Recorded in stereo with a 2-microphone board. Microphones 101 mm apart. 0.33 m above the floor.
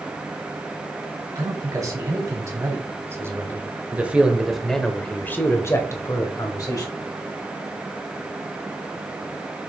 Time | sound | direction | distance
1.4 | a man speaking | 35° right (ahead or behind) | 3 m